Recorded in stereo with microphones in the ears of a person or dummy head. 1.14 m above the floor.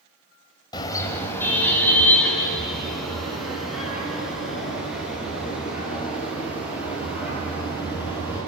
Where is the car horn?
20° left (ahead or behind), 3 m; by 8.4 s 5° right (ahead or behind), 14.5 m.